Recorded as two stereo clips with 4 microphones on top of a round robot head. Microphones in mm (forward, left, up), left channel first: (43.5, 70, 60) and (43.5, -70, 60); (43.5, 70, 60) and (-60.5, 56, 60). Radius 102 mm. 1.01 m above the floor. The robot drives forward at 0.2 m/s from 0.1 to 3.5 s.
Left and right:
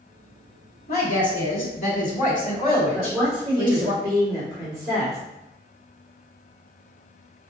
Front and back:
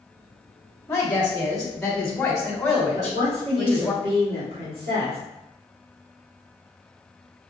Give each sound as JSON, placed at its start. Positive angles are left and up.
{"t": 0.9, "sound": "a woman speaking", "azimuth_deg": 75, "distance_m": 1.8}
{"t": 2.9, "sound": "a woman speaking", "azimuth_deg": 180, "distance_m": 1.7}